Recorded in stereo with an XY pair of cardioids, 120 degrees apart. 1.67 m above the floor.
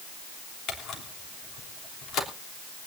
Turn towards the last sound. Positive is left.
turn(degrees=60)